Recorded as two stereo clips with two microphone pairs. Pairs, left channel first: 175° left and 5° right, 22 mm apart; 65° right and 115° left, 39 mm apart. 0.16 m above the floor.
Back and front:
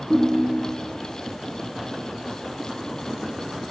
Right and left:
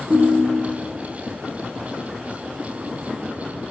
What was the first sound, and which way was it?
A ringtone, 80° left.